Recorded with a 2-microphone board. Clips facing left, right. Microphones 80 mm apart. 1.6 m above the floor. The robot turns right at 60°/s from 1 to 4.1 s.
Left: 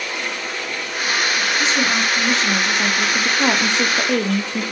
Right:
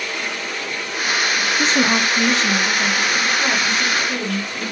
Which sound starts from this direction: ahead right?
A woman speaking, at 1.6 s.